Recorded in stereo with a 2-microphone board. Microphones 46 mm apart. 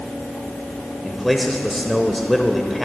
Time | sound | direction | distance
1.0 | a man speaking | centre (ahead or behind) | 0.8 m